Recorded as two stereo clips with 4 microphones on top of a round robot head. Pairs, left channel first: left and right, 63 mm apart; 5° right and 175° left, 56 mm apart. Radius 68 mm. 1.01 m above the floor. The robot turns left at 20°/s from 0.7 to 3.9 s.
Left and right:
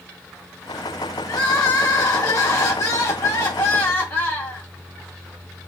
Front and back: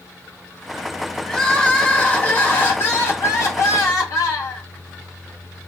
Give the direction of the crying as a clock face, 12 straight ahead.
10 o'clock.